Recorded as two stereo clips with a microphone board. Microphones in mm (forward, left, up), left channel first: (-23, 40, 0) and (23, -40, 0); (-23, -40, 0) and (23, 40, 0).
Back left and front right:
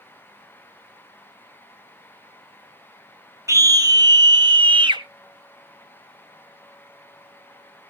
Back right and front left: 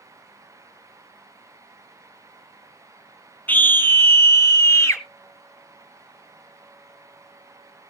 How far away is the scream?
About 1.2 m.